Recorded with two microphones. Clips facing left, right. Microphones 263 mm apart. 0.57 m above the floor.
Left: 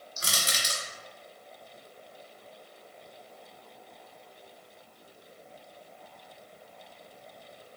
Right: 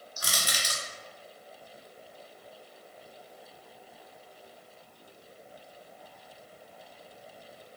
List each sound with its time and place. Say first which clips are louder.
0.2 s crushing: left 1 dB; 30° left (ahead or behind), 0.5 m